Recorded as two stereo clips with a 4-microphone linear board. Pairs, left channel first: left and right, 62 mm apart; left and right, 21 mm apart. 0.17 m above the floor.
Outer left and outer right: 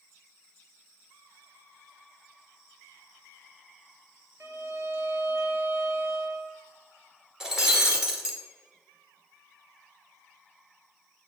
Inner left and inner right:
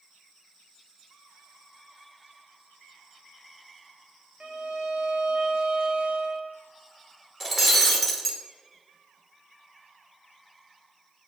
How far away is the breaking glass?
About 1.3 m.